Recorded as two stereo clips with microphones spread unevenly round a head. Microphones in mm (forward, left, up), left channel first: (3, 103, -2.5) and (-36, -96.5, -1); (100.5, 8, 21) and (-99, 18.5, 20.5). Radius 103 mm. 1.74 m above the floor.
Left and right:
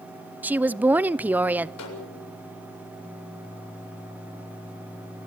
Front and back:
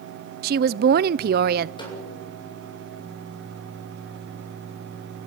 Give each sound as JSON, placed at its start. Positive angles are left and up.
{"t": 0.4, "sound": "a woman speaking", "azimuth_deg": 180, "distance_m": 0.5}
{"t": 1.8, "sound": "a snare drum", "azimuth_deg": 65, "distance_m": 7.0}